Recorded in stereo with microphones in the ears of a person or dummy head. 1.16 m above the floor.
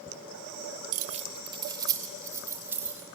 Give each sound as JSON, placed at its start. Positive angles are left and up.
{"t": 0.9, "sound": "keys jangling", "side_deg": -50, "distance_m": 0.7}